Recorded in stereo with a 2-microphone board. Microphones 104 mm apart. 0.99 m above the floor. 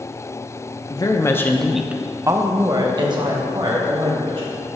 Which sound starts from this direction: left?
A woman speaking, at 0.9 s.